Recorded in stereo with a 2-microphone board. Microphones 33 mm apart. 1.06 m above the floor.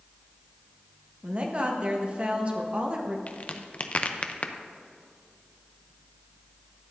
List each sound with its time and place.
1.2 s a woman speaking: 35° right (ahead or behind), 1.2 m
3.3 s a crack: 40° left (ahead or behind), 0.6 m